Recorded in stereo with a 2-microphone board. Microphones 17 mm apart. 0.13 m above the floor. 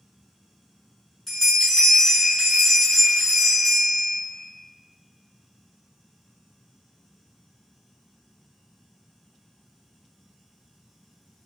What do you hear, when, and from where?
1.3 s a bell: 25° left (ahead or behind), 1.0 m